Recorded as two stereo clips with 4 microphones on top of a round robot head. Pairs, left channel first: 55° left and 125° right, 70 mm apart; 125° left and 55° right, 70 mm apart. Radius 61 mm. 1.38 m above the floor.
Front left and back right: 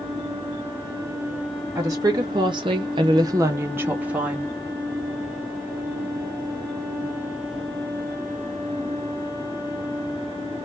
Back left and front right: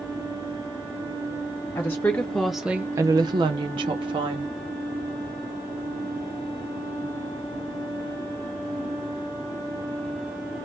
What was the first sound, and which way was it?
A woman speaking, 175° right.